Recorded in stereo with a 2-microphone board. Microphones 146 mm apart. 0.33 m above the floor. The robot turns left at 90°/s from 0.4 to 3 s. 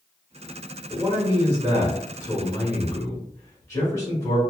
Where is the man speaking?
20° right (ahead or behind), 1.4 m; by 4.4 s 25° left (ahead or behind), 1.4 m.